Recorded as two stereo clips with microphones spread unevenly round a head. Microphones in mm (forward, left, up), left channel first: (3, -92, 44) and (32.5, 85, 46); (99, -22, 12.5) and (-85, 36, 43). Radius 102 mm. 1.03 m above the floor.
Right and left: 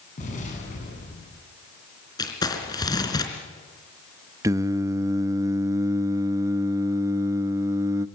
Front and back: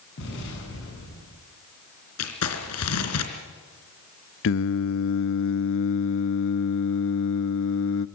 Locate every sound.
0.2 s an explosion: 50° right, 8 m
2.2 s crumpling: 30° right, 3.5 m
4.4 s singing: 5° left, 0.7 m